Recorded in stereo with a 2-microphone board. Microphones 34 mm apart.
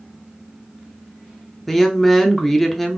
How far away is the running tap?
No running tap in this recording.